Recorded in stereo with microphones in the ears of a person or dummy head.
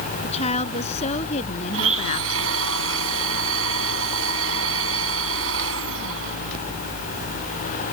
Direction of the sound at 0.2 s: 35° left (ahead or behind).